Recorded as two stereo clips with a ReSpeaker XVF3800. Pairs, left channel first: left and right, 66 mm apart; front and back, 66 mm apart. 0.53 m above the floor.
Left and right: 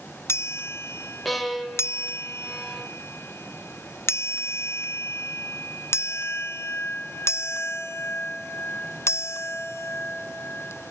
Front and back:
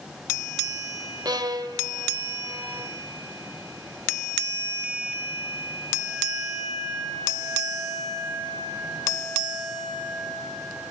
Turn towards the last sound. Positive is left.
turn(degrees=180)